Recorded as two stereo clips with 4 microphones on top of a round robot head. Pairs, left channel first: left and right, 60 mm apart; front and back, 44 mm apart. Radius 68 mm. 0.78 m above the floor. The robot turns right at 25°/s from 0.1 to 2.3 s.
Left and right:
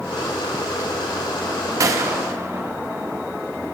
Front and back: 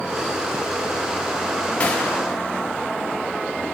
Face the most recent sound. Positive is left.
turn(degrees=-50)